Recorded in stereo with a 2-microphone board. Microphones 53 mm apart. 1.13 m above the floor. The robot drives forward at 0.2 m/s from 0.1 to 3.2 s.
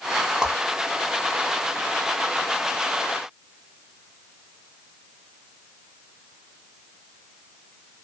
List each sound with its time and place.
0.4 s a whoosh: 15° right (ahead or behind), 0.5 m